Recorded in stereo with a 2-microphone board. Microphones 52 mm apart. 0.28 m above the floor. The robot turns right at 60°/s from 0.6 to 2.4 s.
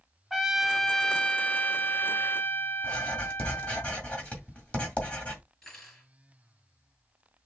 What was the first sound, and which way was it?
A trumpet, 5° right.